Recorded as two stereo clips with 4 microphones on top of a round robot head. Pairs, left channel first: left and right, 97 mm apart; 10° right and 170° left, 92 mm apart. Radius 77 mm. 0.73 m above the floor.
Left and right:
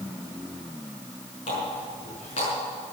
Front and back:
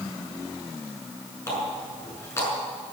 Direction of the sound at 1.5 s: 50° left.